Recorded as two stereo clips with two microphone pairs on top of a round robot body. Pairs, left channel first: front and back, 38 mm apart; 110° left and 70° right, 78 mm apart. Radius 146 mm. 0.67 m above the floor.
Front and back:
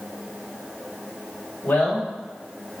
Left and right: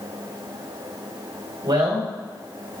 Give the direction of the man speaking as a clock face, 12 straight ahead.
2 o'clock.